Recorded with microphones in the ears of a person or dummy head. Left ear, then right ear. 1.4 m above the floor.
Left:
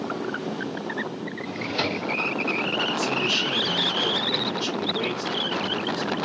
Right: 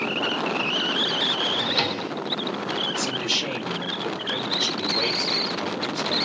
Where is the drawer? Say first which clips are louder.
Right 5 dB; 25° right (ahead or behind), 2 m.